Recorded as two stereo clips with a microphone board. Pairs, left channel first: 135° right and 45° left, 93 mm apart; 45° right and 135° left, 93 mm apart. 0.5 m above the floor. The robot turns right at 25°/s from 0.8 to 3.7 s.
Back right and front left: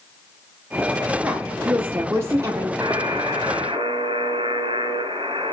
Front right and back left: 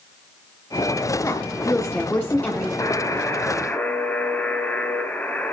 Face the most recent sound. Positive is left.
turn(degrees=25)